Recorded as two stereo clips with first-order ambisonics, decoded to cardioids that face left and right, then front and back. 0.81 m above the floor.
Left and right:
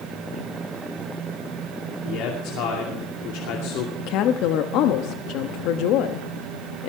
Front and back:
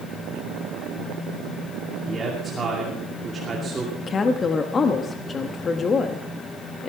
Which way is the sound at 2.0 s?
105° left.